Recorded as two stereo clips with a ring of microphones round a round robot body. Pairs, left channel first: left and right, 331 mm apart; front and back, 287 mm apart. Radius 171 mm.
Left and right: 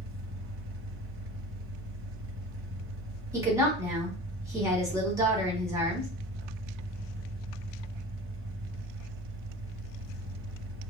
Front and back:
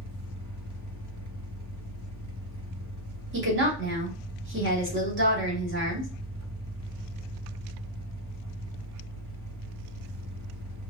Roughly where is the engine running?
Behind right.